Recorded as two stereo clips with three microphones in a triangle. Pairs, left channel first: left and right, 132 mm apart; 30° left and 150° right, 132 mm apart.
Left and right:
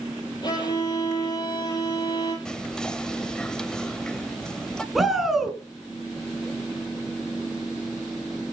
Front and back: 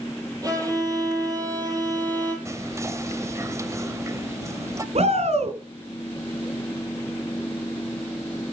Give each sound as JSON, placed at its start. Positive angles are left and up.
{"t": 0.4, "sound": "a violin", "azimuth_deg": 145, "distance_m": 9.5}
{"t": 2.5, "sound": "whispering", "azimuth_deg": 170, "distance_m": 1.1}
{"t": 5.0, "sound": "a shout", "azimuth_deg": 180, "distance_m": 3.5}